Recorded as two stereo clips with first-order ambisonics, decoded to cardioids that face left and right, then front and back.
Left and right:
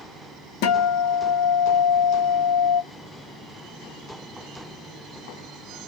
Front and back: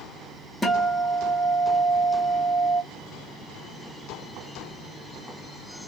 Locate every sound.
0.6 s a guitar: 90° left, 0.8 m